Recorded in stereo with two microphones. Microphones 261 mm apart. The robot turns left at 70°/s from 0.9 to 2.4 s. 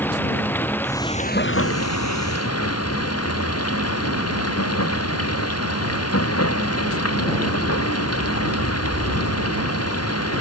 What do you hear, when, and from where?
0.0 s running water: 175° left; by 10.4 s 70° left